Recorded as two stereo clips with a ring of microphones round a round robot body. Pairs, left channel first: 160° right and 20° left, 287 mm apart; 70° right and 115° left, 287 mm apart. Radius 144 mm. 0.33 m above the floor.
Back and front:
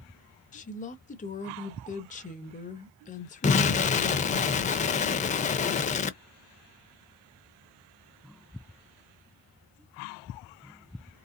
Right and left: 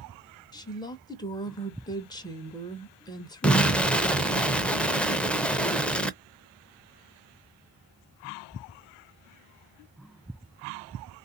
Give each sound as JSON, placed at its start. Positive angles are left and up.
{"t": 0.5, "sound": "a woman speaking", "azimuth_deg": -130, "distance_m": 1.0}
{"t": 3.4, "sound": "an explosion", "azimuth_deg": -150, "distance_m": 0.6}